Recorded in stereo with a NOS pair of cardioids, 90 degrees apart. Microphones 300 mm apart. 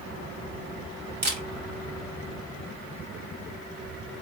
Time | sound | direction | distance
1.2 | a camera shutter | 35° right | 1.6 m